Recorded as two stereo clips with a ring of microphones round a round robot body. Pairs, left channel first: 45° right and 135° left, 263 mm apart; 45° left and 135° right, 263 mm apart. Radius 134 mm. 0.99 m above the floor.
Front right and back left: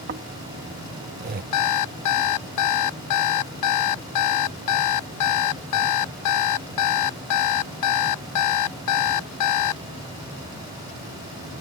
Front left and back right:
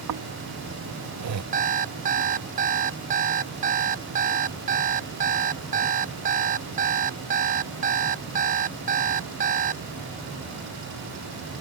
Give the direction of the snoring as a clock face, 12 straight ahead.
6 o'clock.